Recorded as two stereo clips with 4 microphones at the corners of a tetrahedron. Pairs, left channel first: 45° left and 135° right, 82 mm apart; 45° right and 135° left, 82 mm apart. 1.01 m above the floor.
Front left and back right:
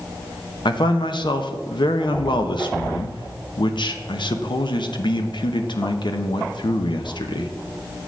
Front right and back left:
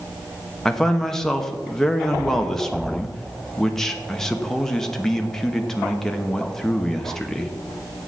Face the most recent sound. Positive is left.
turn(degrees=40)